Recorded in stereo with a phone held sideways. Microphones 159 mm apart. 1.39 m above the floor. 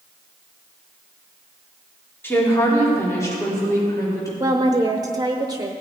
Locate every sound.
2.2 s a woman speaking: 15° left (ahead or behind), 3 m; by 4.3 s 20° left (ahead or behind), 5 m
4.4 s a woman speaking: 25° right (ahead or behind), 0.7 m